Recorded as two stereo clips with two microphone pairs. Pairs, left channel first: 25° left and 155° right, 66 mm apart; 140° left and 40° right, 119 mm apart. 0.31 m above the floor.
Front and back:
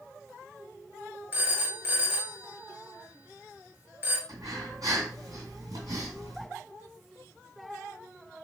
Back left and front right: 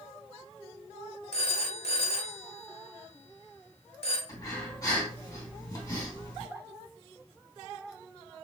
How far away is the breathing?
About 2.5 m.